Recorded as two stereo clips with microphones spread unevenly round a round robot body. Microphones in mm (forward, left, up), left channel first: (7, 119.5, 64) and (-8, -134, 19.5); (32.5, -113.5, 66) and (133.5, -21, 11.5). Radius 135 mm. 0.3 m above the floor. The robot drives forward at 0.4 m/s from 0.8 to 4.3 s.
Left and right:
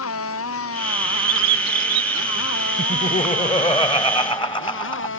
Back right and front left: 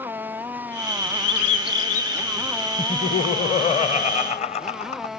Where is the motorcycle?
125° left; by 5.2 s 130° left.